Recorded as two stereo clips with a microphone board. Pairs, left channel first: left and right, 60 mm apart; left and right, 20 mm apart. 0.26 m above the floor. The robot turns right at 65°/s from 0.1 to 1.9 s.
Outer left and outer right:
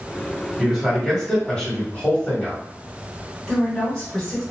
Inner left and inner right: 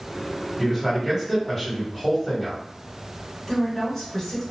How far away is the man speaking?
About 1.4 m.